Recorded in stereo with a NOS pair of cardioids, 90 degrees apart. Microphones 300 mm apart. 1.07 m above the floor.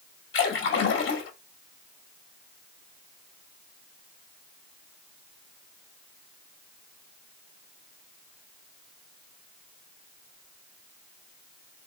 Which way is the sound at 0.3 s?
45° left.